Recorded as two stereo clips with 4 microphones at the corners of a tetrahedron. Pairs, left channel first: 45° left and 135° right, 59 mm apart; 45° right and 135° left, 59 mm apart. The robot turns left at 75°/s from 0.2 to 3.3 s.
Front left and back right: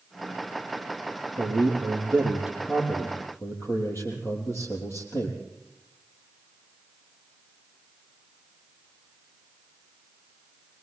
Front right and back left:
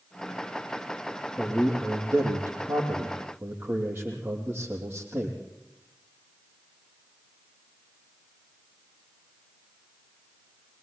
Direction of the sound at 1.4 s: 135° right.